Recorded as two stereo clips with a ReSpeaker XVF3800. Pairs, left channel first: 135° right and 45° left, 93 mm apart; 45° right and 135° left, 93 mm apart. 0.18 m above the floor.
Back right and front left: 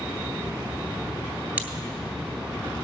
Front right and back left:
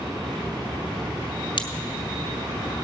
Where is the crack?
25° right, 1.1 m.